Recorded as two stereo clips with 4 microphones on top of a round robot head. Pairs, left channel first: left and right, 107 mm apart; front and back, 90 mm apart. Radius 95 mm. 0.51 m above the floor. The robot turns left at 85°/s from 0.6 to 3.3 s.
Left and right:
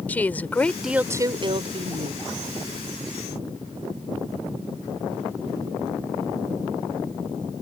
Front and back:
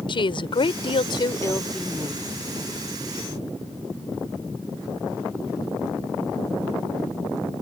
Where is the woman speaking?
15° left; by 2.3 s 125° right.